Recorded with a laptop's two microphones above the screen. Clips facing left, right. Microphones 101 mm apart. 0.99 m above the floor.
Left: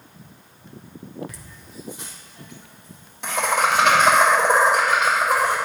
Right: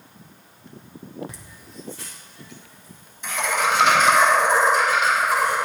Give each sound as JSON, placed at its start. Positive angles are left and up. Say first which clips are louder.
{"t": 1.3, "sound": "laughter", "louder": "even", "side_deg": -25, "distance_m": 1.1}